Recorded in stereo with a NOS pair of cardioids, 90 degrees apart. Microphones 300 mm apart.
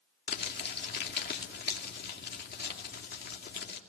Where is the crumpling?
35° left, 2.5 m.